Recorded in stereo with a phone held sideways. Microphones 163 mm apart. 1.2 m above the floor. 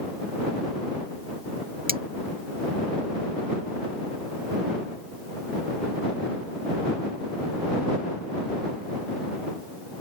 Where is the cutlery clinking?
65° right (ahead or behind).